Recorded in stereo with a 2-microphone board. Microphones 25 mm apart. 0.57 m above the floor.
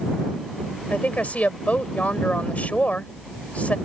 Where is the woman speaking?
70° left (ahead or behind).